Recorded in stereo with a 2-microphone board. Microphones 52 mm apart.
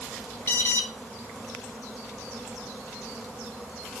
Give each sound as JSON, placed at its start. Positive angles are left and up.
{"t": 0.5, "sound": "an alarm", "side_deg": 45, "distance_m": 1.1}